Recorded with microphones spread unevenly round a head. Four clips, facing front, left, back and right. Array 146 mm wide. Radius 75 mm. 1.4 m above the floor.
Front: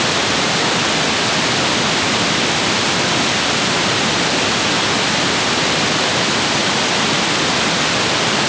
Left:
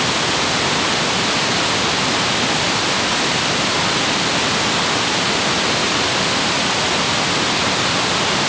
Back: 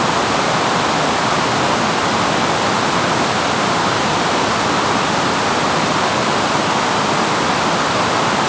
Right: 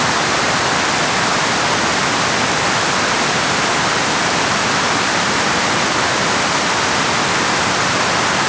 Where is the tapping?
I don't hear tapping.